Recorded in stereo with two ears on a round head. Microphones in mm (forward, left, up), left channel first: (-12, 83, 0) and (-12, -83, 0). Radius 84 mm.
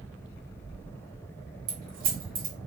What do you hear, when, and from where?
1.7 s keys jangling: 50° right (ahead or behind), 1.1 m